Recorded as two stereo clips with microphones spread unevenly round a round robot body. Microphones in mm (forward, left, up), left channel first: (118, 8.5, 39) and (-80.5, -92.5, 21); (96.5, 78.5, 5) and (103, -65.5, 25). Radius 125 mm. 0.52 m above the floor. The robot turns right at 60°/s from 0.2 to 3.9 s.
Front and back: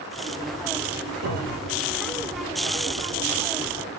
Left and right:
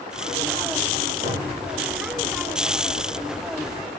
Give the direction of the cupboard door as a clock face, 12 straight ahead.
6 o'clock.